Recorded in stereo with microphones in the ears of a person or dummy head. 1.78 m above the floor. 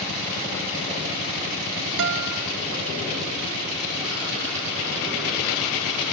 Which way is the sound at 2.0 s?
70° right (ahead or behind).